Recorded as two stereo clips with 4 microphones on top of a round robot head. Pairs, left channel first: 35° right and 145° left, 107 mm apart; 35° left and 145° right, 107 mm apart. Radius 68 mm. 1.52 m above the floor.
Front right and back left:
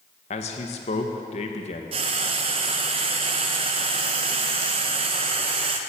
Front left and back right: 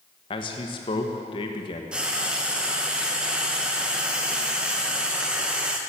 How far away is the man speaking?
About 1.4 m.